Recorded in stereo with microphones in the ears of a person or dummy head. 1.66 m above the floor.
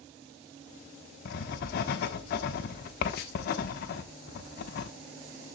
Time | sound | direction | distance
1.2 | writing | 50° left (ahead or behind) | 1.0 m